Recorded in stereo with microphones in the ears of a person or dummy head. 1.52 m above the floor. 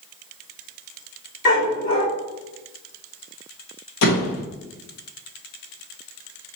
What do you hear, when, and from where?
1.4 s a dog barking: 60° left (ahead or behind), 1.8 m
4.0 s a door slam: 60° left (ahead or behind), 0.9 m